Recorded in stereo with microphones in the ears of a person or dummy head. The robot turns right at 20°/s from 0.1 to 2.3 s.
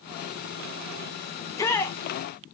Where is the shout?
20° left (ahead or behind), 0.8 m; by 2.0 s 10° left (ahead or behind), 0.8 m.